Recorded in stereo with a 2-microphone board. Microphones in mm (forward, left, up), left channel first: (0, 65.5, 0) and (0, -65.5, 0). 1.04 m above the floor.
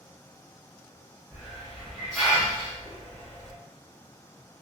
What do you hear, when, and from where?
1.3 s a hiss: centre (ahead or behind), 1.3 m